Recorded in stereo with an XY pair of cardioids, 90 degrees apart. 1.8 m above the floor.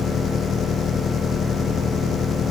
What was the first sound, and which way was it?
An engine running, 60° left.